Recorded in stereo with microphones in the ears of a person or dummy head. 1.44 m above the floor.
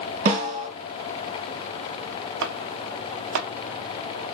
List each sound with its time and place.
0.2 s a snare drum: 50° right (ahead or behind), 1.0 m
2.4 s chopping: 65° right (ahead or behind), 0.5 m